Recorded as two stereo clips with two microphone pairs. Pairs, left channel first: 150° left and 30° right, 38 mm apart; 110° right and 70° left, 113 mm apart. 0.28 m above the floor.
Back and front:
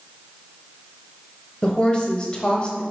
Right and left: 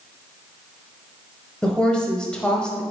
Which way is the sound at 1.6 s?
Straight behind.